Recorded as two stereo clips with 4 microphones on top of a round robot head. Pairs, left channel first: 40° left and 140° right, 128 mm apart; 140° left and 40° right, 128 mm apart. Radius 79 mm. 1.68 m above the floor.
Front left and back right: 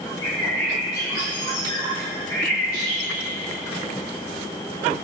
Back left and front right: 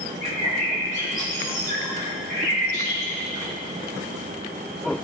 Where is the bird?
105° left, 2.0 m.